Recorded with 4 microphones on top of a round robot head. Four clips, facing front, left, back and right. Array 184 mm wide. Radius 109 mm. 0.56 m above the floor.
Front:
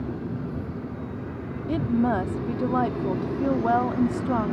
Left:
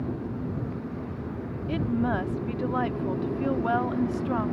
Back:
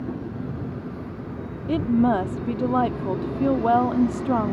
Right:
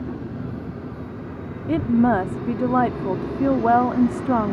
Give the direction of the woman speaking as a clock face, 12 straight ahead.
4 o'clock.